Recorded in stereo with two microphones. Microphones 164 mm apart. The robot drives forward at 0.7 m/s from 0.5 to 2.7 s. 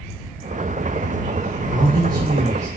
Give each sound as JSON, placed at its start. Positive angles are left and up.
{"t": 1.7, "sound": "a man speaking", "side_deg": -30, "distance_m": 0.8}